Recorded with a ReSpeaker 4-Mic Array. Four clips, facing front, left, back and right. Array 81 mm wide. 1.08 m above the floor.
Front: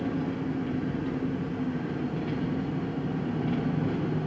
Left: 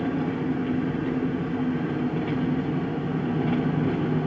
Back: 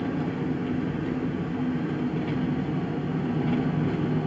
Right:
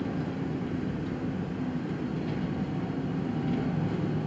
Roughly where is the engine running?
Left.